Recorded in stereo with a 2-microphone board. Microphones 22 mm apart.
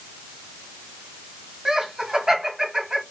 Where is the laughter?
25° right (ahead or behind), 1.6 m.